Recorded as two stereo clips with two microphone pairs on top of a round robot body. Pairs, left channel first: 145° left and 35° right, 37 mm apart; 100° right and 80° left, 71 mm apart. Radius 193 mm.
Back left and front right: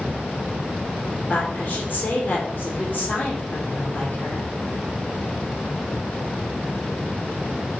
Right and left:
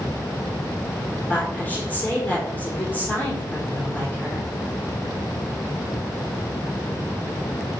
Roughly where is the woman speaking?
Behind.